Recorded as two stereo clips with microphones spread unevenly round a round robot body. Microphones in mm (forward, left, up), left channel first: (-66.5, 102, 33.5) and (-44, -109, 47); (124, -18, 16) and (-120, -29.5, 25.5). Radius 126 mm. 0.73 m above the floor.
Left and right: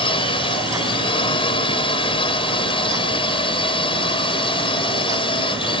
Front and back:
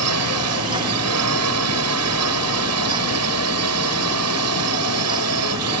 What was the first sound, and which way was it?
A drone, 160° left.